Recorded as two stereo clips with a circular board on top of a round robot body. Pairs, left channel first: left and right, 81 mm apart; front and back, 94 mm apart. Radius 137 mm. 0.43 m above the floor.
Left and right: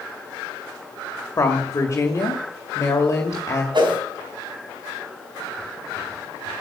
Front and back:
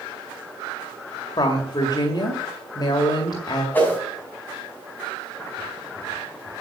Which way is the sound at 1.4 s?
35° left.